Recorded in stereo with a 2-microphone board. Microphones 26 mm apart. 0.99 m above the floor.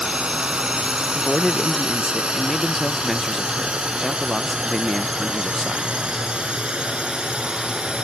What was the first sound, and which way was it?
A drone, 45° right (ahead or behind).